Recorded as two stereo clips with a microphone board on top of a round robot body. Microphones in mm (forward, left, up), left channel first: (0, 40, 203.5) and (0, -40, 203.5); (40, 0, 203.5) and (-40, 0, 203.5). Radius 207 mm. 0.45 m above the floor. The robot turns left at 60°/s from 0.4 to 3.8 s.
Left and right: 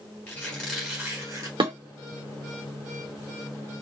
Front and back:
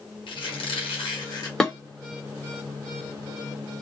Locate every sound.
0.3 s a squeak: 20° left, 1.1 m; by 1.5 s 45° right, 1.1 m
1.6 s dishes clattering: 80° right, 1.3 m; by 1.7 s 90° right, 1.3 m